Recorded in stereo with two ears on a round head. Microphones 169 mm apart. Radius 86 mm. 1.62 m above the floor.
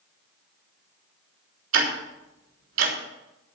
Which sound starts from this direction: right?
Ticking, at 1.7 s.